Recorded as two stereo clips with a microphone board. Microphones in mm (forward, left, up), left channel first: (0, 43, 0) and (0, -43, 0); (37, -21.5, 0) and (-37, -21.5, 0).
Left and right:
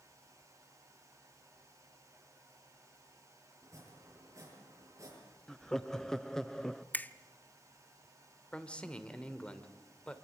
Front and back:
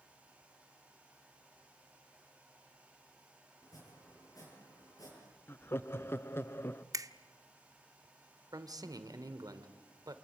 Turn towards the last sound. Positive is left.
turn(degrees=165)